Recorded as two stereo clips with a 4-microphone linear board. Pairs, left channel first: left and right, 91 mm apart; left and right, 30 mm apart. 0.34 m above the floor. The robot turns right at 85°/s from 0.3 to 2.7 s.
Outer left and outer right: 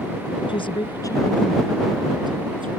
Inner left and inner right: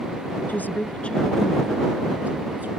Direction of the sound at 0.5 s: 75° left (ahead or behind).